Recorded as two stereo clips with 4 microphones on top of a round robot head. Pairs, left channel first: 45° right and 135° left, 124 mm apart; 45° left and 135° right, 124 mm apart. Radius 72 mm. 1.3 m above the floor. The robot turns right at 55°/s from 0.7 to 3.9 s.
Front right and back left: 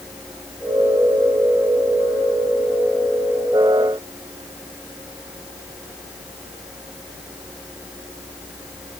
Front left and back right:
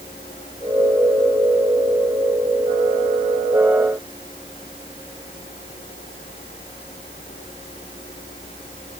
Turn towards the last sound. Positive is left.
No sound to turn to.